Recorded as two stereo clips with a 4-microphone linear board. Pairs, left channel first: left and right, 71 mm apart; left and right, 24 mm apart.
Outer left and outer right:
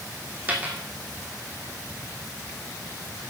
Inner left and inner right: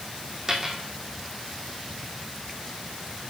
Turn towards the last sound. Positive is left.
turn(degrees=-25)  # may be behind; listen again after turning